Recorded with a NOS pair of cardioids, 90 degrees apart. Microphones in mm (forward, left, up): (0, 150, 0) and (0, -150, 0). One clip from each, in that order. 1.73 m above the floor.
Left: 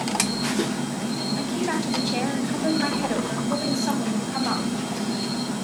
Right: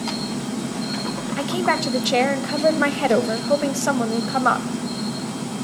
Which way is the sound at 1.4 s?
70° right.